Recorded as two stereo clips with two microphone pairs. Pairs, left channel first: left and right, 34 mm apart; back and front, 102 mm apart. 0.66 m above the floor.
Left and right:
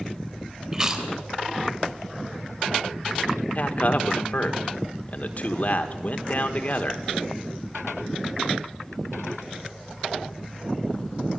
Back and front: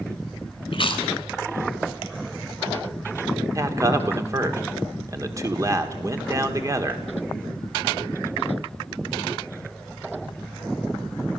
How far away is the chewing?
About 2.5 m.